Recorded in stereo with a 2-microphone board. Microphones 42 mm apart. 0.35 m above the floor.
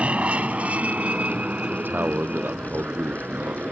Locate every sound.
0.0 s an aircraft: 30° right (ahead or behind); by 3.7 s 40° right (ahead or behind)
1.7 s a man speaking: 55° right (ahead or behind)